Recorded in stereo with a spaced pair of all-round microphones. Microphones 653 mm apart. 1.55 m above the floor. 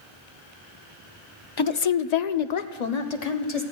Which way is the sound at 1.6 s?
35° left (ahead or behind).